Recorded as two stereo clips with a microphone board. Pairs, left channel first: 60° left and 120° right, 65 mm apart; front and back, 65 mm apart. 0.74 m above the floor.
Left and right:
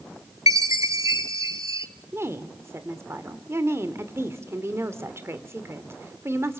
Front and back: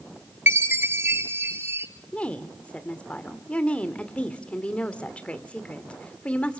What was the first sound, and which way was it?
A chime, 135° right.